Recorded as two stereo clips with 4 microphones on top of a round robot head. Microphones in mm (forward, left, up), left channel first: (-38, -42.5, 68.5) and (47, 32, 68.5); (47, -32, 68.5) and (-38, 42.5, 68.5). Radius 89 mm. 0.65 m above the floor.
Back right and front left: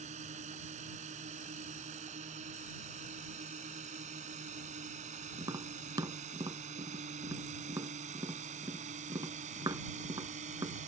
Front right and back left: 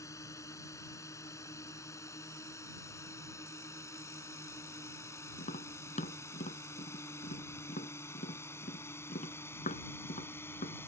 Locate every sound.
0.0 s a drone: 20° left; by 10.9 s 30° left
5.4 s tapping: 20° right